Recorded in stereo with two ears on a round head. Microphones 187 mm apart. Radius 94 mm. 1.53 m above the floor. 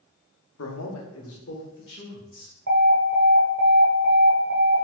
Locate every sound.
0.6 s a man speaking: 75° left (ahead or behind), 0.8 m; by 2.5 s 50° left (ahead or behind), 1.9 m
2.7 s an alarm: 60° right (ahead or behind), 1.2 m